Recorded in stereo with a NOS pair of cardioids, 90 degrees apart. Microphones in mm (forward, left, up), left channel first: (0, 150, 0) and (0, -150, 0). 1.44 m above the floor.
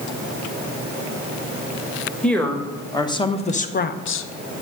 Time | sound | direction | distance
2.2 | a woman speaking | 5° left | 1.4 m